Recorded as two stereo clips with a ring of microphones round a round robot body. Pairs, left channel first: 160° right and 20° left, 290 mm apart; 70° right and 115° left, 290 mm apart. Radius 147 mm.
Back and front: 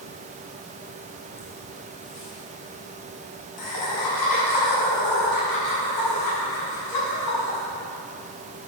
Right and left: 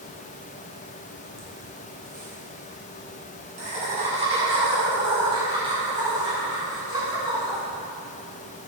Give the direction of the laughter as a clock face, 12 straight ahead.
6 o'clock.